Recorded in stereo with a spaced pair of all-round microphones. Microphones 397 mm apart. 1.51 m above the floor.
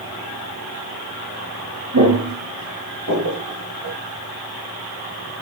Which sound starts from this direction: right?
Footsteps, at 1.9 s.